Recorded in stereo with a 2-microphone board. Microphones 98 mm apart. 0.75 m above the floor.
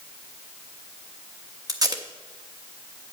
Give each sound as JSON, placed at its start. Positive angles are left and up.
{"t": 1.7, "sound": "tape being pulled", "side_deg": -40, "distance_m": 1.0}